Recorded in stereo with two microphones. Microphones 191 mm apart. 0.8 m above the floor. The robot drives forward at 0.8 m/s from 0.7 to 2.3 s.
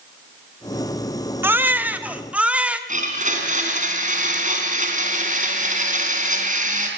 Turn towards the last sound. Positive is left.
turn(degrees=-40)  # may be behind; listen again after turning